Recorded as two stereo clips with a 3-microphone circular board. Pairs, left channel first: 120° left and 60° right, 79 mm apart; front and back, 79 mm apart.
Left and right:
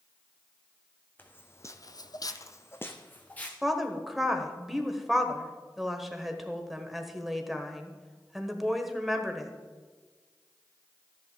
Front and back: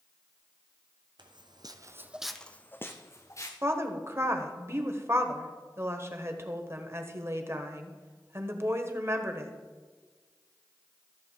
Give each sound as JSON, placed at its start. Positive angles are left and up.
{"t": 1.2, "sound": "footsteps", "azimuth_deg": -175, "distance_m": 1.1}
{"t": 3.6, "sound": "a woman speaking", "azimuth_deg": -145, "distance_m": 1.2}